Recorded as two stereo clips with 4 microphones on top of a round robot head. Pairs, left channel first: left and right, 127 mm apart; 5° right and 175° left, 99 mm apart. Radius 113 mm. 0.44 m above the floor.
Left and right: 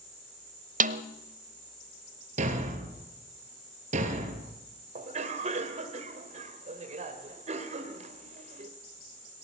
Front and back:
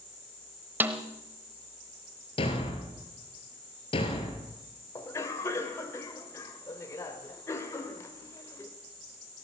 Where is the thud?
50° right, 3 m.